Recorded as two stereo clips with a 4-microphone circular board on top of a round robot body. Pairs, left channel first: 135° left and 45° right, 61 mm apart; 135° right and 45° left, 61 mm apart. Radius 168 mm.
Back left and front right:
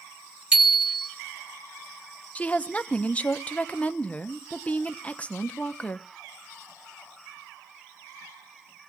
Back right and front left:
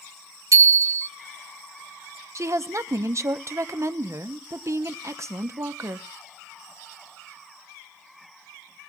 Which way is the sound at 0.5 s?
25° left.